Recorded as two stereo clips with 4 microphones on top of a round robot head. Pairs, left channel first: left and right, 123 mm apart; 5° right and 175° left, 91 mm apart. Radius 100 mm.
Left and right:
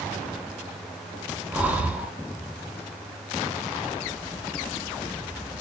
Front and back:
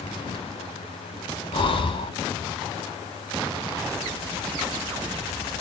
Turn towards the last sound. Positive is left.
turn(degrees=-10)